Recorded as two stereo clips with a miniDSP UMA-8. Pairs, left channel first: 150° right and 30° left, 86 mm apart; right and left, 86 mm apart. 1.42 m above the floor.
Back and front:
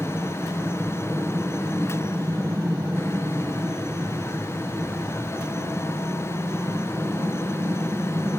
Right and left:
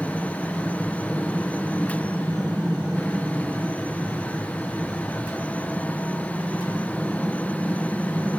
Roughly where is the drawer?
I don't hear a drawer.